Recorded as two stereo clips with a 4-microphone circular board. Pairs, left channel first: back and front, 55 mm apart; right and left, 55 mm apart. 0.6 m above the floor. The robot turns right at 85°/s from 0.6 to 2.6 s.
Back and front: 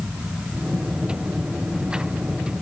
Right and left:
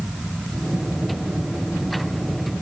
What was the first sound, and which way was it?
Only background noise.